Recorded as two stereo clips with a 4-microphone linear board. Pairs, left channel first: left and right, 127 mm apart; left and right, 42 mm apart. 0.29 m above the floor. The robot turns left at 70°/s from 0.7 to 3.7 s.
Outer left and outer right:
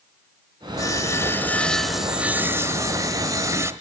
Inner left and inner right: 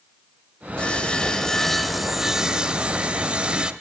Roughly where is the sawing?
Left.